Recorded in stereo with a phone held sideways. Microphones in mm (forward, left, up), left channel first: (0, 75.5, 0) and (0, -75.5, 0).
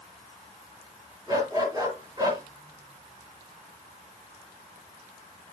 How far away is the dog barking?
About 8 m.